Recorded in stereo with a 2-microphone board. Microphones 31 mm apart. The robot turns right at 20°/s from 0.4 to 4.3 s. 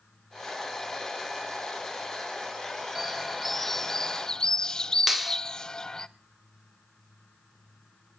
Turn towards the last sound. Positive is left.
turn(degrees=-5)  # may be behind; listen again after turning